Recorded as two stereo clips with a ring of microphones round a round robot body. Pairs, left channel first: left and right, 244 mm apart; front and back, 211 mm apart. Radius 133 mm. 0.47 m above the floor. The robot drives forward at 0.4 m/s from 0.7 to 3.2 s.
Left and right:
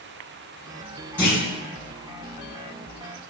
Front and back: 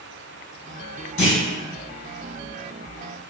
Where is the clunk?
10° left, 1.9 m.